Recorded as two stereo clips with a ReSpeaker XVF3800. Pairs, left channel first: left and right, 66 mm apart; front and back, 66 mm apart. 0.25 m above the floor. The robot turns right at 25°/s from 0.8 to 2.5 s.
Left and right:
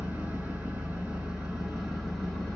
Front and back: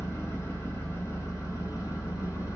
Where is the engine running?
30° right, 1.6 m; by 2.6 s 10° left, 1.6 m.